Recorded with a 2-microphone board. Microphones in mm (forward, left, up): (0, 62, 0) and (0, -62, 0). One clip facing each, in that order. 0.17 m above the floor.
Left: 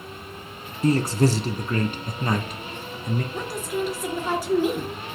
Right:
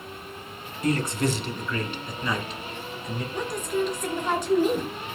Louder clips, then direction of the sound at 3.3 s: Right 1 dB; 5° left (ahead or behind).